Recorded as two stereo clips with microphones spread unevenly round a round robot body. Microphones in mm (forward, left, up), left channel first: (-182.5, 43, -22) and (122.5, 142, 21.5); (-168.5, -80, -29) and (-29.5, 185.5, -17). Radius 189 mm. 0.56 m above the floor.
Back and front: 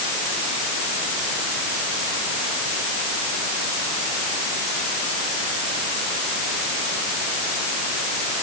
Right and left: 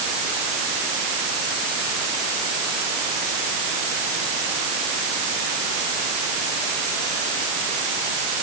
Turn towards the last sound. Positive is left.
No sound to turn to.